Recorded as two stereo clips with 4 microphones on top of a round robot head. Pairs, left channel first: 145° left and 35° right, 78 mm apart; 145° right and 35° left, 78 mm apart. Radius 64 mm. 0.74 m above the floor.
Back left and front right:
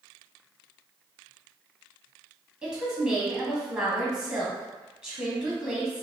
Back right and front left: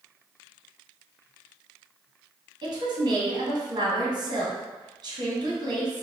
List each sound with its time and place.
2.6 s a woman speaking: 40° left, 1.5 m